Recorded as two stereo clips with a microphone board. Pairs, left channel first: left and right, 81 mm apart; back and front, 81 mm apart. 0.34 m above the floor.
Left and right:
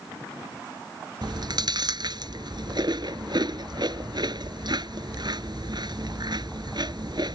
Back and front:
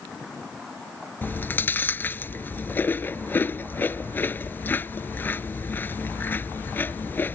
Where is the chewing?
115° right.